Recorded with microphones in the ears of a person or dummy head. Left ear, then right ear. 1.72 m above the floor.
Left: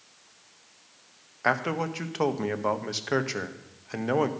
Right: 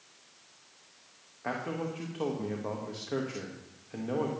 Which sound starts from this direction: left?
A man speaking, at 1.4 s.